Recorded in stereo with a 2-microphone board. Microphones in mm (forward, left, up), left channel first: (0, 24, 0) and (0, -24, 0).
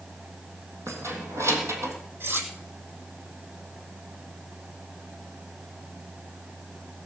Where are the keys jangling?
70° right (ahead or behind), 3.5 m.